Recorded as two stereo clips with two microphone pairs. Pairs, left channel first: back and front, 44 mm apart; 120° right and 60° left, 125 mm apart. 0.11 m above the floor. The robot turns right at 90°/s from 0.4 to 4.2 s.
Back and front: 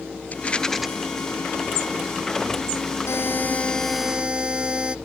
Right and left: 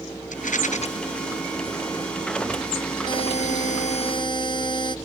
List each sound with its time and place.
0.3 s a rattle: 130° right; by 0.9 s 85° right
3.1 s a buzzer: 170° right; by 5.0 s 70° right